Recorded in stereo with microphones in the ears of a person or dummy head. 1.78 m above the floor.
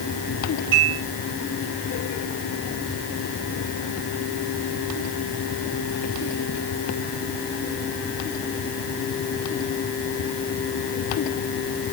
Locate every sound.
0.7 s dishes clattering: 75° right (ahead or behind), 10 m